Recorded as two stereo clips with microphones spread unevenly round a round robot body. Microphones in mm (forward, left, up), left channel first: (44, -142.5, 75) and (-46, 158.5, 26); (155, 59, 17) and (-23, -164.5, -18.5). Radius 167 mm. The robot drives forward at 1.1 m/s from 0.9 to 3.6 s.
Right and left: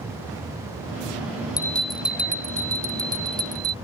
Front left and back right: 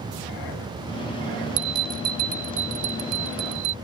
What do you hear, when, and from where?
1.6 s a bell: 155° right; by 3.7 s 175° right